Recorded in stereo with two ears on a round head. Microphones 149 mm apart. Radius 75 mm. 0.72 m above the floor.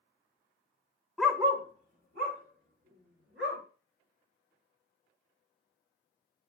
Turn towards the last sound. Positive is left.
turn(degrees=-80)